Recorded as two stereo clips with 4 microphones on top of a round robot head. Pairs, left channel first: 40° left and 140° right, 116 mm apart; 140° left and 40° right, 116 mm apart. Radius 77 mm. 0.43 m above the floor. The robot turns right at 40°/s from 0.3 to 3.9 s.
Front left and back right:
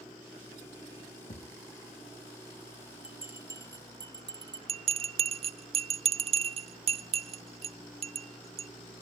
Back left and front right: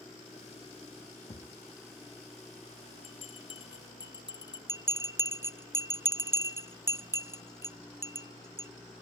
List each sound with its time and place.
1.3 s a thud: 80° left, 0.8 m; by 1.6 s 90° left, 0.8 m
3.0 s a bell: 145° left, 1.6 m; by 4.6 s straight behind, 1.6 m
4.7 s a bell: 110° right, 0.6 m